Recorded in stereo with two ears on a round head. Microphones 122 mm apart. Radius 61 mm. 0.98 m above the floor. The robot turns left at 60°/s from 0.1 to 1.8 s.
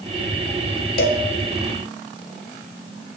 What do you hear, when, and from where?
1.0 s a cowbell: 80° left, 0.8 m; by 1.2 s 85° left, 0.8 m